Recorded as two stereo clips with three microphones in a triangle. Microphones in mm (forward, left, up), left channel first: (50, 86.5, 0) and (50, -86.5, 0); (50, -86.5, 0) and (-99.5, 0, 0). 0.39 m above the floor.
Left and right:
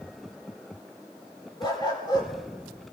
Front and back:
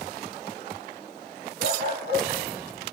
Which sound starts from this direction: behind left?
A dog barking, at 1.6 s.